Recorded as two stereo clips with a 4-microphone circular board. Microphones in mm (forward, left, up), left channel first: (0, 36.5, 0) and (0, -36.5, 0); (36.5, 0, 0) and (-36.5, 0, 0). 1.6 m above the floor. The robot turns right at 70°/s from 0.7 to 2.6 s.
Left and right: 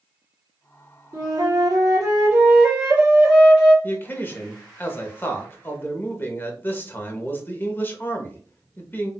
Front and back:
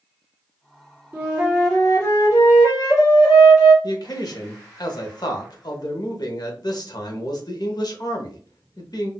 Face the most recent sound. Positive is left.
turn(degrees=30)